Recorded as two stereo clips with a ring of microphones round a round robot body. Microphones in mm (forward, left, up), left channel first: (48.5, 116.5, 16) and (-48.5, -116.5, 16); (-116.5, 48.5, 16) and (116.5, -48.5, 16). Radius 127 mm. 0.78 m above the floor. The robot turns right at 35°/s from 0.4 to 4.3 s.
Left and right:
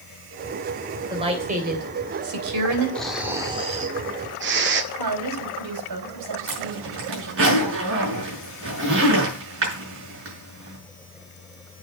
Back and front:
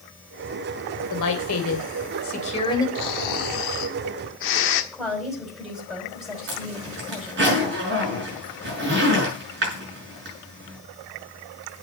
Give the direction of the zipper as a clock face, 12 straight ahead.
2 o'clock.